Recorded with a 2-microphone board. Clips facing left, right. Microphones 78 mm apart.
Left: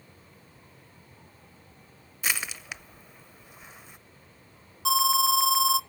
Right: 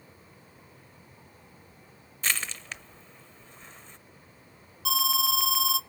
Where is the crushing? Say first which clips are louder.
Even; 10° left (ahead or behind), 0.6 m.